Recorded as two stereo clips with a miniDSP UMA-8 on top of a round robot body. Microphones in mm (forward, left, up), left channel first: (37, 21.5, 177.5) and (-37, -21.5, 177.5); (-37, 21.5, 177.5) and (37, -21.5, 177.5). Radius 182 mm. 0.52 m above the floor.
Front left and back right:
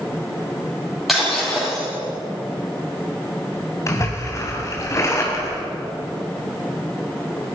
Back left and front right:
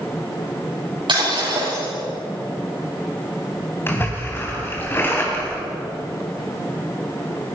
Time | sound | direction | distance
1.1 | breaking glass | 60° right | 9.5 m
3.9 | a splash | 85° left | 3.5 m